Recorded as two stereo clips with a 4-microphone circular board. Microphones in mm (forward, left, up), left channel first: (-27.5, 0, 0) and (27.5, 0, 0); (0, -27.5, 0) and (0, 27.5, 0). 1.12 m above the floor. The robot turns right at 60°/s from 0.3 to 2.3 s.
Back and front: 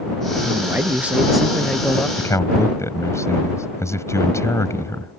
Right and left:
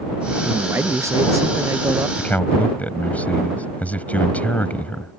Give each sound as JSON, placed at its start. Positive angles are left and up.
{"t": 0.5, "sound": "a man speaking", "azimuth_deg": 30}
{"t": 2.2, "sound": "a man speaking", "azimuth_deg": -160}